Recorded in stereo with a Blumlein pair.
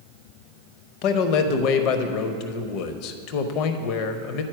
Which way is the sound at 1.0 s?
40° left.